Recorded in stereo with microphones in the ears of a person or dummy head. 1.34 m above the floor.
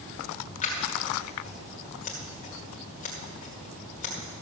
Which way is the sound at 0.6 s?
35° left (ahead or behind).